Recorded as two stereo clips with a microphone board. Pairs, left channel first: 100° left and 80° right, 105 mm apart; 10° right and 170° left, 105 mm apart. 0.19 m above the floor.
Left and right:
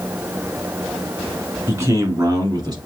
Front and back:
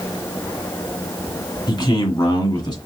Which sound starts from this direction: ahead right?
A man speaking, at 1.7 s.